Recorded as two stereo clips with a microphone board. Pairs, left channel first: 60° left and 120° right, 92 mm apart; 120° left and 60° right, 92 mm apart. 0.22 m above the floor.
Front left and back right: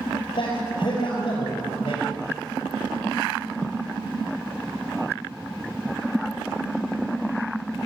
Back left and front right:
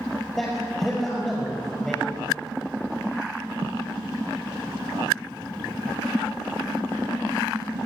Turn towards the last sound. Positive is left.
turn(degrees=35)